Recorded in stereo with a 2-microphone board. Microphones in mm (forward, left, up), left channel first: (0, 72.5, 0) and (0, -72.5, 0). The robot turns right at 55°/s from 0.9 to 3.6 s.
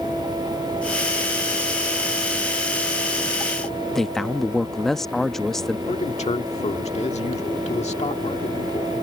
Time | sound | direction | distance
4.0 | a man speaking | centre (ahead or behind) | ?
5.9 | a man speaking | 50° left (ahead or behind) | ?